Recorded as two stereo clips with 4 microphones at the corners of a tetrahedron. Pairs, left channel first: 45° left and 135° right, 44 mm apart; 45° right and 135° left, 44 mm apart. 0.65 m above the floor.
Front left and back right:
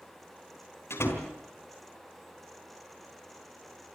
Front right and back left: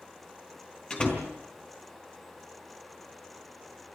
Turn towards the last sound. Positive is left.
turn(degrees=20)